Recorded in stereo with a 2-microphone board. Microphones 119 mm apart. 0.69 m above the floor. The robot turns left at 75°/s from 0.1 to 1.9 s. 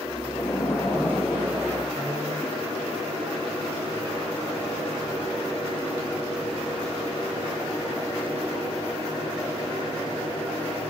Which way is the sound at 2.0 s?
70° right (ahead or behind).